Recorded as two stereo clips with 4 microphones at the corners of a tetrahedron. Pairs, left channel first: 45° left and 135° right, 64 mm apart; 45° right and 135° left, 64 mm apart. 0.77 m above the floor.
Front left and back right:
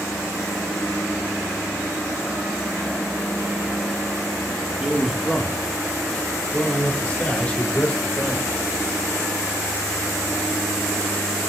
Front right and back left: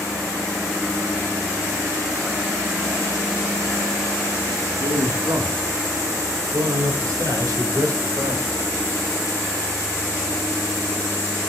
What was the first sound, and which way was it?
A man speaking, 150° left.